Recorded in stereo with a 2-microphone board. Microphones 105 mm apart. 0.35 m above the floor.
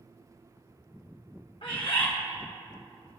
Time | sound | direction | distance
1.6 | a bird | 65° left (ahead or behind) | 1.6 m